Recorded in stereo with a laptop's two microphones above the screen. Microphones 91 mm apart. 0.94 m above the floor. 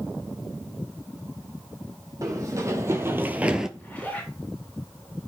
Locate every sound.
2.2 s running footsteps: 40° right (ahead or behind), 2 m; by 3.7 s 5° right (ahead or behind), 0.9 m
3.8 s a zipper: 15° left (ahead or behind), 4.5 m